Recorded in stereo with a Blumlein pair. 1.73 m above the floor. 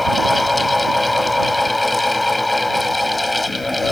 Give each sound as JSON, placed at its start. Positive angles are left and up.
{"t": 0.0, "sound": "a fan", "azimuth_deg": 5}